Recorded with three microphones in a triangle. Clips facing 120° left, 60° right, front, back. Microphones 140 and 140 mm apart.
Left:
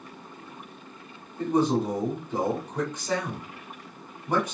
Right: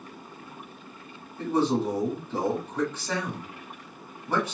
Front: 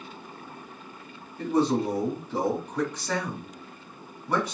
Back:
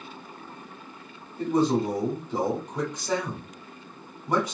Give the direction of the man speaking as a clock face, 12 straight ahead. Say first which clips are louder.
Left 1 dB, back 1 dB; 7 o'clock.